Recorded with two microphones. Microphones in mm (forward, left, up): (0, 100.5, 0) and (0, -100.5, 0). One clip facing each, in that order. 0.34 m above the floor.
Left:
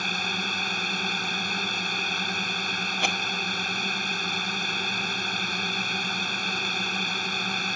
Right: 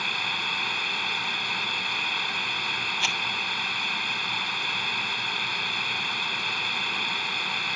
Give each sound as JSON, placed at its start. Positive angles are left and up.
{"t": 0.0, "sound": "a drone", "side_deg": 45}
{"t": 3.0, "sound": "a rattle", "side_deg": 60}